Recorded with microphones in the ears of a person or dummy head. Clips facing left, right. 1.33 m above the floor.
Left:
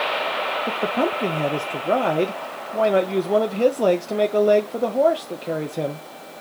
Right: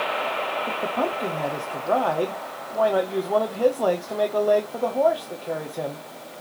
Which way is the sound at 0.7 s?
30° left (ahead or behind).